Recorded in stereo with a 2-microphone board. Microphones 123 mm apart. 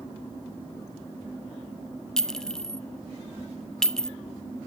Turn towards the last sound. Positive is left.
turn(degrees=5)  # may be behind; listen again after turning